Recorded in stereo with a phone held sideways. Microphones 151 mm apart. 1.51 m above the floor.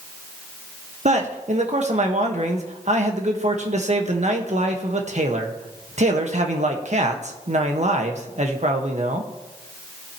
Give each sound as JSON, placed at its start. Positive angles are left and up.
{"t": 1.1, "sound": "a man speaking", "side_deg": -50, "distance_m": 1.5}